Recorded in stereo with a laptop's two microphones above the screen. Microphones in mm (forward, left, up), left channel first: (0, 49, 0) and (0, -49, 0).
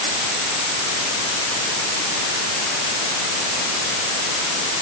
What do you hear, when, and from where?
Only background noise.